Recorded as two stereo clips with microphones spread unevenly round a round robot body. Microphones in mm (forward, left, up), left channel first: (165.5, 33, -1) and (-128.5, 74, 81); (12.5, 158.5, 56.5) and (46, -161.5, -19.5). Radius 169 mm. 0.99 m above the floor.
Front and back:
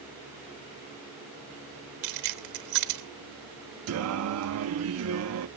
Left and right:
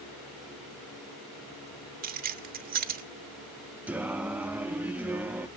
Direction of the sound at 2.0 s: 155° right.